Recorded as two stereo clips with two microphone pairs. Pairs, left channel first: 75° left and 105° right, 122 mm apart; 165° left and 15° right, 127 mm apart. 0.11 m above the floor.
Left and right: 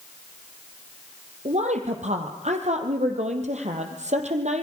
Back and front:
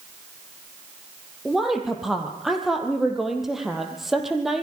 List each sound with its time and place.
1.4 s a woman speaking: 105° right, 3.5 m